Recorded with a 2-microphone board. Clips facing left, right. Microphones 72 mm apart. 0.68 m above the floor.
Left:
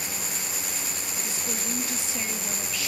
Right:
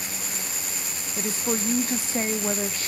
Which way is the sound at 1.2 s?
40° right (ahead or behind).